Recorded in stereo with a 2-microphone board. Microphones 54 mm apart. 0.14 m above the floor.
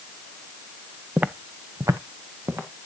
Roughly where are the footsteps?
Centre.